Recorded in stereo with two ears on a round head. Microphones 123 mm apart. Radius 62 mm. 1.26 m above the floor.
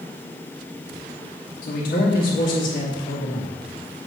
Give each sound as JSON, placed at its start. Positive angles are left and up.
{"t": 1.6, "sound": "a man speaking", "side_deg": 70, "distance_m": 2.0}